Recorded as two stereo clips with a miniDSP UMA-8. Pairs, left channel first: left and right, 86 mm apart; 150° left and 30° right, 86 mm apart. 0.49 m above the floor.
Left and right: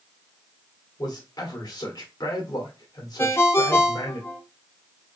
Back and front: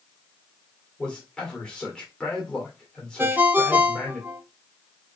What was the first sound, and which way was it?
A man speaking, 70° left.